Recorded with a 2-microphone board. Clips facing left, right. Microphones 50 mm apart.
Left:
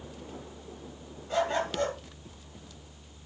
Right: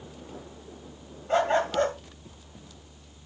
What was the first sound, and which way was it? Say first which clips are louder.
A dog barking: right 5 dB; 40° right (ahead or behind).